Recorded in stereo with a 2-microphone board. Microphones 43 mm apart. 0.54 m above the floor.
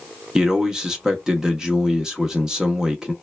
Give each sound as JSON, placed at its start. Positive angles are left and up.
{"t": 0.3, "sound": "a man speaking", "side_deg": -15, "distance_m": 0.7}